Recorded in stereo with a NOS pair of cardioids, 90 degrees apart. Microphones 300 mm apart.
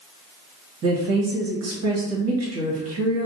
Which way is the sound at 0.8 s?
55° right.